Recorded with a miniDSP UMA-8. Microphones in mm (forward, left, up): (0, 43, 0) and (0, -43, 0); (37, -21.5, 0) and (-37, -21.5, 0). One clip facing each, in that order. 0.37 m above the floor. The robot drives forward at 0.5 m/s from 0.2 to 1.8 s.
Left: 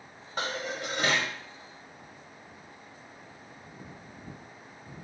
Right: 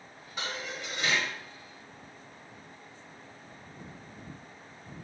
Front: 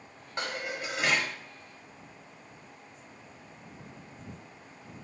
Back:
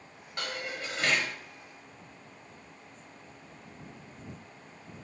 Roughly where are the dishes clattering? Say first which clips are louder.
Left 5 dB, front 2 dB; ahead left.